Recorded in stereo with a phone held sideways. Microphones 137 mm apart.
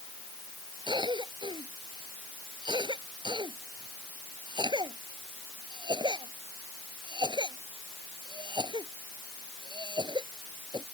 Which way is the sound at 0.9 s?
30° right (ahead or behind).